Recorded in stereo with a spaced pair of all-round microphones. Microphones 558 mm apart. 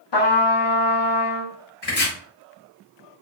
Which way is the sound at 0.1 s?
50° left (ahead or behind).